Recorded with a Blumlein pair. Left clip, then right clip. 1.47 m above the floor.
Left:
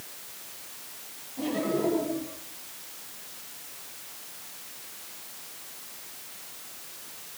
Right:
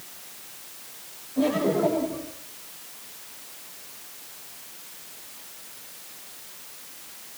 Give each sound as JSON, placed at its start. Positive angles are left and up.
{"t": 1.4, "sound": "laughter", "azimuth_deg": -45, "distance_m": 8.5}